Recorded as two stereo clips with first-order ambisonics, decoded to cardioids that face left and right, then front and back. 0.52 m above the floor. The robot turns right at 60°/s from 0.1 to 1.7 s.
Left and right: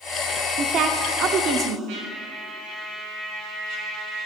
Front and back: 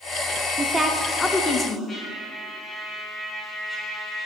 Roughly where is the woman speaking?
Behind right.